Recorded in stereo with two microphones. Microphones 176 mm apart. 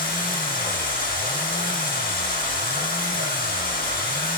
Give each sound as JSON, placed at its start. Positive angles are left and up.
{"t": 0.0, "sound": "running water", "side_deg": 55, "distance_m": 3.5}